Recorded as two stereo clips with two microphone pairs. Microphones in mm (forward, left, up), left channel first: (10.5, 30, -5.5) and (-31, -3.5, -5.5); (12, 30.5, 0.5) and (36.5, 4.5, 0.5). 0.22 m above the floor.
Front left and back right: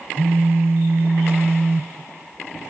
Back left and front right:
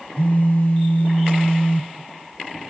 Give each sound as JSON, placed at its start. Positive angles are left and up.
{"t": 0.2, "sound": "a phone buzzing", "azimuth_deg": 180, "distance_m": 1.3}